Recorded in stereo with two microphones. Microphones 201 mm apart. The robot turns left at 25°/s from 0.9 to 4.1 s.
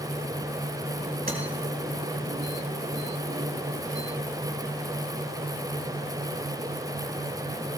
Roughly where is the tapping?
Right.